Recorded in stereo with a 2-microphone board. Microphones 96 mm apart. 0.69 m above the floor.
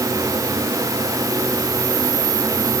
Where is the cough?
I don't hear a cough.